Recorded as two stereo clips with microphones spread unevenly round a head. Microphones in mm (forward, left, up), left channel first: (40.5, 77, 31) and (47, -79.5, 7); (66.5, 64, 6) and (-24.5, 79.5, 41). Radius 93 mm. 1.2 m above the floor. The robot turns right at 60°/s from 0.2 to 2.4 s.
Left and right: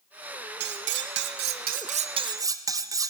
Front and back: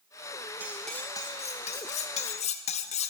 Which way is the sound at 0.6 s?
125° right.